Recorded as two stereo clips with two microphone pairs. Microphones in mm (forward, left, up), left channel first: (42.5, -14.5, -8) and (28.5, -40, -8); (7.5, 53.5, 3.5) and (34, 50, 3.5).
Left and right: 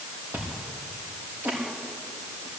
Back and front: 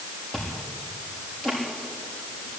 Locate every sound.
0.3 s chewing: 130° right, 7 m